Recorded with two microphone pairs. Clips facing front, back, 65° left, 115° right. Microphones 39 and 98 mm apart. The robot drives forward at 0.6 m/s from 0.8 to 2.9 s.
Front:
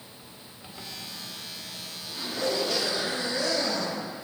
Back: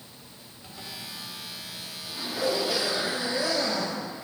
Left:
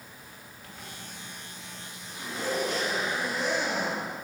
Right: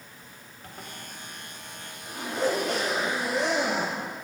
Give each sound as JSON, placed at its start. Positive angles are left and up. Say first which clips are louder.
{"t": 0.6, "sound": "a zipper", "louder": "even, right 3 dB", "azimuth_deg": -70, "distance_m": 2.5}